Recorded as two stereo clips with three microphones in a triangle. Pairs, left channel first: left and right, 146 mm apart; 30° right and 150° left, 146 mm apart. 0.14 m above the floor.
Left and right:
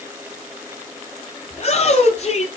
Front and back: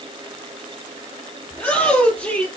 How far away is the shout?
About 3.5 m.